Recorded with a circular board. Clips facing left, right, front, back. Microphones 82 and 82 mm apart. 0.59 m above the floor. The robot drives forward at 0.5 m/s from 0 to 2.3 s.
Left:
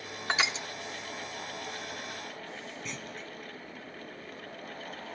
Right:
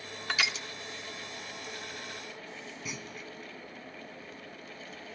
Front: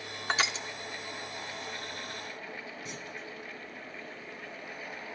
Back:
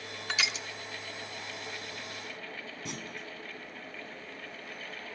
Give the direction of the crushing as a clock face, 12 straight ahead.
11 o'clock.